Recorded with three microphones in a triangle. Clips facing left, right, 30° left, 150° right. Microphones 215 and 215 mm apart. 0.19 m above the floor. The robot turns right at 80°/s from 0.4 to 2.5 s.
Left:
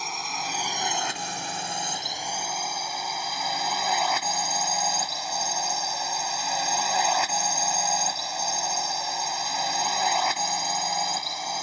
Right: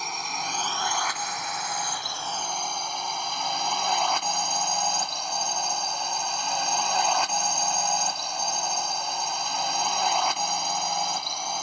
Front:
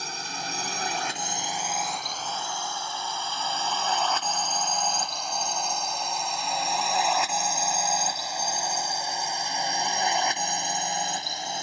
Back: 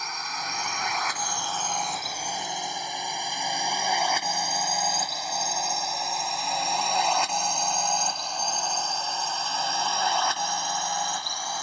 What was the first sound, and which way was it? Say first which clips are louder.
A drone: even, front 1 dB; straight ahead.